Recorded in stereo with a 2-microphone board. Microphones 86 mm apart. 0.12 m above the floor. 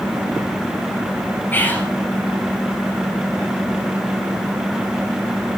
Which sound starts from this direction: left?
Whispering, at 1.5 s.